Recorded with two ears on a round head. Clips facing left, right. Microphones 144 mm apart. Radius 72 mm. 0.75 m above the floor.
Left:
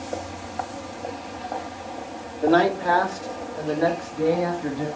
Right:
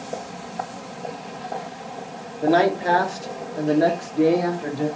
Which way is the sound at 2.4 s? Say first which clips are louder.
Right 1 dB; 10° right (ahead or behind).